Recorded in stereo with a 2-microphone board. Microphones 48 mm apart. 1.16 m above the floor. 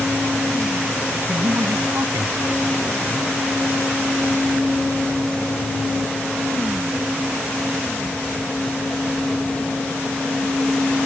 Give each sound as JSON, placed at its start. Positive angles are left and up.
{"t": 1.3, "sound": "a man speaking", "side_deg": -85}